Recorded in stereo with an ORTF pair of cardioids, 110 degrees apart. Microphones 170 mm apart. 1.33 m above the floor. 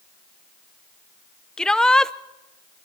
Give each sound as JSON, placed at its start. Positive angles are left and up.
{"t": 1.6, "sound": "a shout", "azimuth_deg": 5, "distance_m": 0.8}